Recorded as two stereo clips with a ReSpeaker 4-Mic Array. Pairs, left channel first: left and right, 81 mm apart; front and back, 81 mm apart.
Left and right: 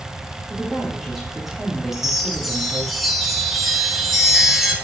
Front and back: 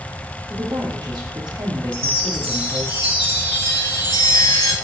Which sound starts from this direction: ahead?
A chime, at 1.9 s.